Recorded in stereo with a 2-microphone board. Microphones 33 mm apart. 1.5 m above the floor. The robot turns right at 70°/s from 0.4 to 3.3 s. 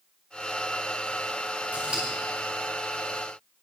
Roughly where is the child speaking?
No child speaking in this recording.